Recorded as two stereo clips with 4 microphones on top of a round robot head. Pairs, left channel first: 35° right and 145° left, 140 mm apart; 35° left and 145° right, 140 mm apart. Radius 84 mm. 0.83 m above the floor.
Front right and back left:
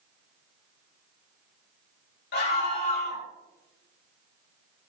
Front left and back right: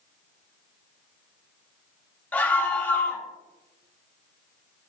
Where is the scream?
45° right, 4 m.